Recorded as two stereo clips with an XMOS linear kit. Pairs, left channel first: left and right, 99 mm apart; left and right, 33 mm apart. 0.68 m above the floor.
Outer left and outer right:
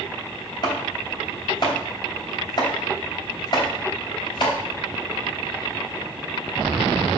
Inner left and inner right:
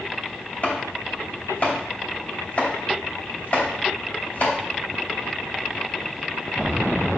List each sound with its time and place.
0.6 s chopping: 50° left (ahead or behind), 2.5 m